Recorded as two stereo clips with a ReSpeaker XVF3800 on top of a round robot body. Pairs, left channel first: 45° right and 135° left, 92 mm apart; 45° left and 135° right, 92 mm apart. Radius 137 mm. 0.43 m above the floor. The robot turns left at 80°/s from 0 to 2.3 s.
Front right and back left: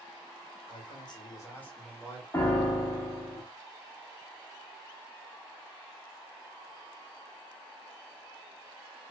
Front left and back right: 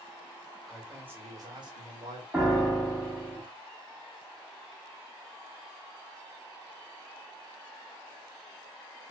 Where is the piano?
65° right, 1.1 m.